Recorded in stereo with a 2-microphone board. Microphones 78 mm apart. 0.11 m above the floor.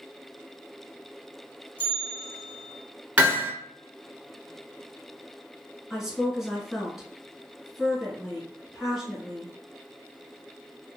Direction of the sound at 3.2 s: 20° right (ahead or behind).